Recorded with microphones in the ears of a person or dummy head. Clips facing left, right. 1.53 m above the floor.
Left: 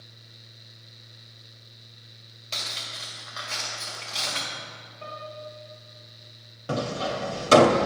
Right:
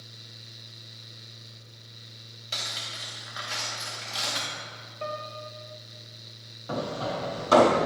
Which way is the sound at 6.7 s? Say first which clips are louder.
Left 2 dB; 35° left (ahead or behind).